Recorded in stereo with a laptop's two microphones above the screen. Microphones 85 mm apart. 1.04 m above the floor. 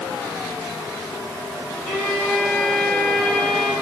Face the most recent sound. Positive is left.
turn(degrees=10)  # may be behind; listen again after turning